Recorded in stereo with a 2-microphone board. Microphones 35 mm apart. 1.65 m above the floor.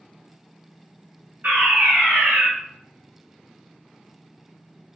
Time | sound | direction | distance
1.4 | a fire alarm | 65° right (ahead or behind) | 1.4 m